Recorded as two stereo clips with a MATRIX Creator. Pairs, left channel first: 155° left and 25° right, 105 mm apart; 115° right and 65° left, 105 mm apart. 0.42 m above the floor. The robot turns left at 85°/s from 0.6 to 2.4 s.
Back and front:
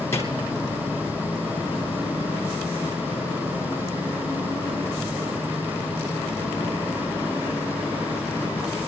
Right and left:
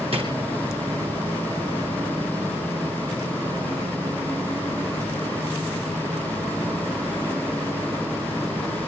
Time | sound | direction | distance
0.1 | a drawer | 90° left | 6 m